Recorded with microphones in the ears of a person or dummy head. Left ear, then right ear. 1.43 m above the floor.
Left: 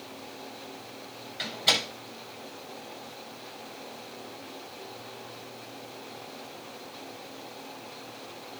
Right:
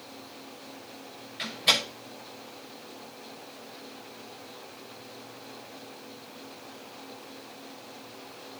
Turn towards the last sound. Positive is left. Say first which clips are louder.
# right 1 dB
turn(degrees=-5)  # may be behind; listen again after turning